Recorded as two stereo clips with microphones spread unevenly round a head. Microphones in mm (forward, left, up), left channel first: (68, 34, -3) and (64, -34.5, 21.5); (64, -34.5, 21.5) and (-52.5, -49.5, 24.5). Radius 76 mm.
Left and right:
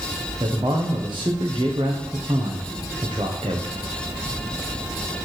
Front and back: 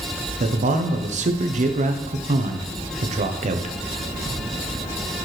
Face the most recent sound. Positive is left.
turn(degrees=-155)